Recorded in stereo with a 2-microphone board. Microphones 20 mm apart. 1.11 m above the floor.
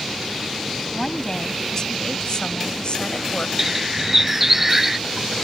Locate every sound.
0.9 s a woman speaking: 25° left (ahead or behind); by 3.5 s 60° left (ahead or behind)
3.6 s a bird: 15° right (ahead or behind)